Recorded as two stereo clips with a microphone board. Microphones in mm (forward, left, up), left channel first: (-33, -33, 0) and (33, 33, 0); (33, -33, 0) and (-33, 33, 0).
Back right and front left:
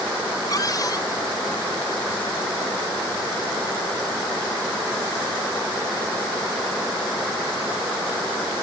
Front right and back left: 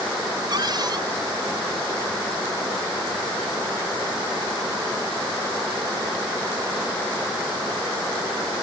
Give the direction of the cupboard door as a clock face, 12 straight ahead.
6 o'clock.